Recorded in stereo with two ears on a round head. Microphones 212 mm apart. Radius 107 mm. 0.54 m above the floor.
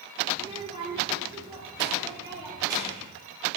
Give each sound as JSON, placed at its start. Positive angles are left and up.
{"t": 0.3, "sound": "a child speaking", "side_deg": -25, "distance_m": 1.0}